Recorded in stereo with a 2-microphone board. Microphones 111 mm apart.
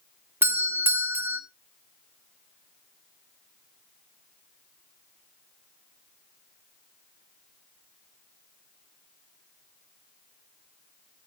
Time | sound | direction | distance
0.4 | a doorbell | 20° right (ahead or behind) | 1.1 m